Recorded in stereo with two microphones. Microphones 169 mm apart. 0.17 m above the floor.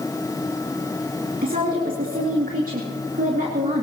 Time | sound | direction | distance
1.4 | a woman speaking | 55° right (ahead or behind) | 2.5 m